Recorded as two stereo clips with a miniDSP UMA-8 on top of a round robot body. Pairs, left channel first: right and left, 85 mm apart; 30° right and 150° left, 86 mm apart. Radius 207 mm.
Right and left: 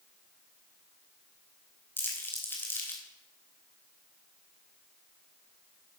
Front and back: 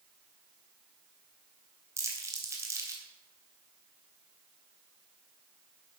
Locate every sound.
2.0 s crumpling: 155° right, 3 m